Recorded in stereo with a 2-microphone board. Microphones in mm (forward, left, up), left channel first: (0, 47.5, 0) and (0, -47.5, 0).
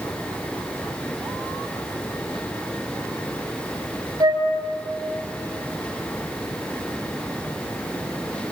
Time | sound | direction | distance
4.2 | a flute | 40° right (ahead or behind) | 4.5 m